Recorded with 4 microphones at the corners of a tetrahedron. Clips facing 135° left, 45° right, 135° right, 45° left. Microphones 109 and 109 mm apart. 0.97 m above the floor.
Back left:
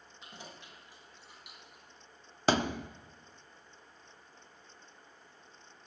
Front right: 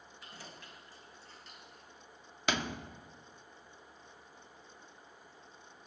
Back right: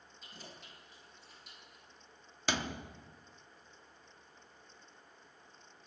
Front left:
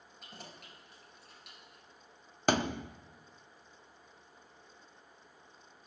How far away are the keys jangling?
About 4 m.